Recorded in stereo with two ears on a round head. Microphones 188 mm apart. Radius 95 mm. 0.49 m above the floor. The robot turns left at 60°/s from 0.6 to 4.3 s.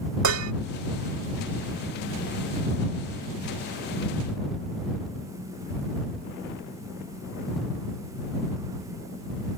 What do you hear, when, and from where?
0.2 s dishes clattering: 75° right (ahead or behind)